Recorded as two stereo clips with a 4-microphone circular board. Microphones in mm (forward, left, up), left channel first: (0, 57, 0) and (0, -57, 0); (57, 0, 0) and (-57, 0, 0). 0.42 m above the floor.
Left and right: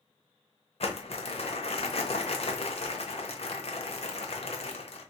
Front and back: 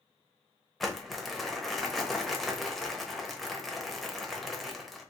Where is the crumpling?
90° left, 0.9 m.